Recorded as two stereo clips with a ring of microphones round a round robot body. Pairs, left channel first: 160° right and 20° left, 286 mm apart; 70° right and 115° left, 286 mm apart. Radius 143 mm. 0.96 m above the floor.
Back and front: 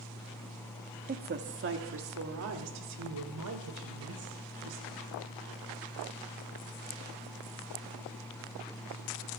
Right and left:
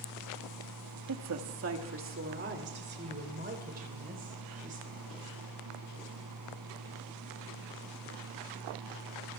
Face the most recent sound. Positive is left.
turn(degrees=45)